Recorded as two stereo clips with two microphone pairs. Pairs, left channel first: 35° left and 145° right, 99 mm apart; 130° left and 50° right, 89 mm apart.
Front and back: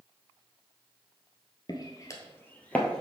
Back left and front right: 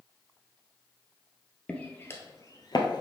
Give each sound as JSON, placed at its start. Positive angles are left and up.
{"t": 1.7, "sound": "footsteps", "azimuth_deg": 55, "distance_m": 1.1}